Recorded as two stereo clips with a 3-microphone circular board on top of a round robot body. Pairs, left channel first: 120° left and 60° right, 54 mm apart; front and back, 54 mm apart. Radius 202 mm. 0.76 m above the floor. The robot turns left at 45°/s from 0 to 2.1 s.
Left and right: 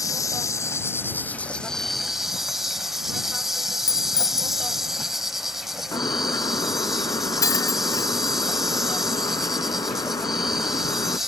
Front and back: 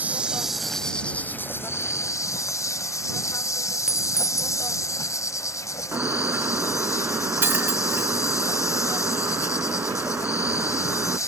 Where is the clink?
100° left.